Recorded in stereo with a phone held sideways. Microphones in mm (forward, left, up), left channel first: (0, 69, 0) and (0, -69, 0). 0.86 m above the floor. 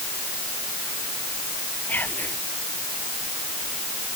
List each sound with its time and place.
1.9 s whispering: 15° left (ahead or behind)